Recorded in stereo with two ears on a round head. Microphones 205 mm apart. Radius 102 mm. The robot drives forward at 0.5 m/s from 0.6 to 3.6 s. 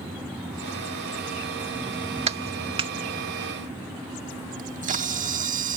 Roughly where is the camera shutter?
Right.